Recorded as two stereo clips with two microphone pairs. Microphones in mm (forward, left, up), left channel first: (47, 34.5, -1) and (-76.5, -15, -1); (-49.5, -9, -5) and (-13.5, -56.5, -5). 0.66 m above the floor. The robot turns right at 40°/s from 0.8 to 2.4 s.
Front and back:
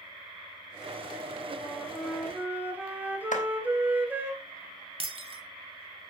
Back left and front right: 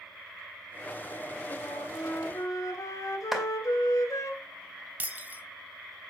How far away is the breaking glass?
About 1.5 m.